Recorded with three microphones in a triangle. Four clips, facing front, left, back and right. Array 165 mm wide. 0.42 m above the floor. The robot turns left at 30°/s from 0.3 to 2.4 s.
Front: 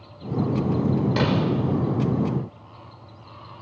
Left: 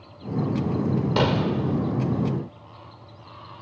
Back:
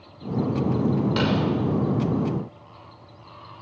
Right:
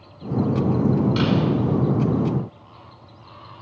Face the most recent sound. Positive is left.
turn(degrees=50)